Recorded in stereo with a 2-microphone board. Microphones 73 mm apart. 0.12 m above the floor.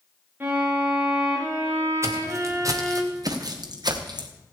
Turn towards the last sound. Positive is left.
turn(degrees=-70)  # may be behind; listen again after turning